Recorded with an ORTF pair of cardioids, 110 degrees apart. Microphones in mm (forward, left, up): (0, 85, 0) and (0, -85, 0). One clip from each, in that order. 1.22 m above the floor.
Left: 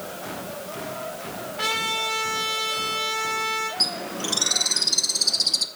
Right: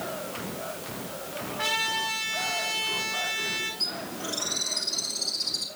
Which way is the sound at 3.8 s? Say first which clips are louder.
Left 6 dB; 70° left.